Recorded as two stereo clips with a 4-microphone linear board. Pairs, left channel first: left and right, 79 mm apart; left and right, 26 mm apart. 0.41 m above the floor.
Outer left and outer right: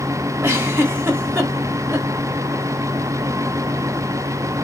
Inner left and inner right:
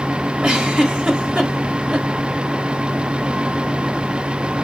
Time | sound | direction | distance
0.4 | a giggle | 25° right (ahead or behind) | 0.9 m